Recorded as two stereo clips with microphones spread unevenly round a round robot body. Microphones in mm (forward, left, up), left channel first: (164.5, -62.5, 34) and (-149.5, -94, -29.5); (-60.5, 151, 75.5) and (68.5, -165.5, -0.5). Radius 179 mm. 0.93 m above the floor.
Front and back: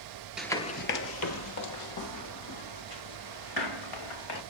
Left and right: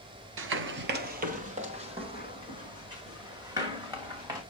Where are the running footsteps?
55° right, 0.9 m; by 4.4 s 15° left, 5.5 m.